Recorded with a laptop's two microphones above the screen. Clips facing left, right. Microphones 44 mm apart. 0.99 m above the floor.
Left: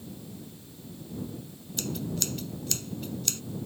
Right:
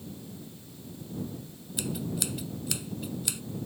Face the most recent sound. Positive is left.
turn(degrees=-10)  # may be behind; listen again after turning